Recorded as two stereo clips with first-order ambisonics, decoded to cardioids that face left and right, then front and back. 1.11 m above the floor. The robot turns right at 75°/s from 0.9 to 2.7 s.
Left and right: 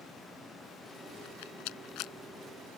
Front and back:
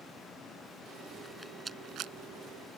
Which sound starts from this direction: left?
A rattle, at 1.2 s.